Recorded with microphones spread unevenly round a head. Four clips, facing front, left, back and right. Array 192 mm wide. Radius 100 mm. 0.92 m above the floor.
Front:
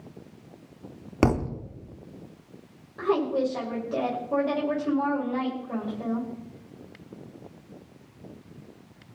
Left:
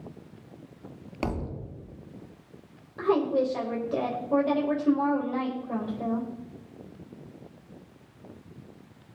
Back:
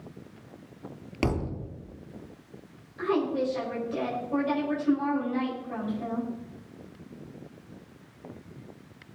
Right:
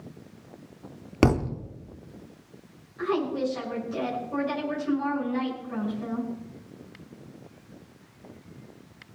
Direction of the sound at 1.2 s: 65° right.